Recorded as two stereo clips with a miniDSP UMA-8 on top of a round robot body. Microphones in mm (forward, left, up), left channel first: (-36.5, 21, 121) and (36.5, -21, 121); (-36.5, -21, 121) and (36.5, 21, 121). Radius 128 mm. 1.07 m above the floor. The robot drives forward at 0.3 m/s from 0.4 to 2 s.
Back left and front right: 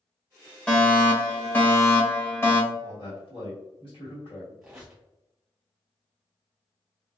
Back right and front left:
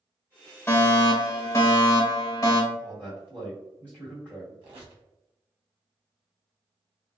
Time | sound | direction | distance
0.7 | a fire alarm | 145° right | 1.1 m
2.7 | a man speaking | 140° left | 1.7 m
4.6 | a squeak | 50° left | 0.8 m